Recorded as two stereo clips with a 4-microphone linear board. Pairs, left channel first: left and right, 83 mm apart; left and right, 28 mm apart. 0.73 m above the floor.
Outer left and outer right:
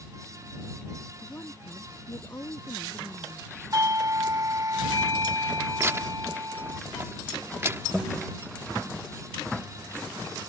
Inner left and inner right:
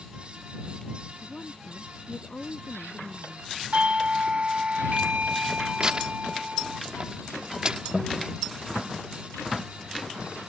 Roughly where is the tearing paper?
Right.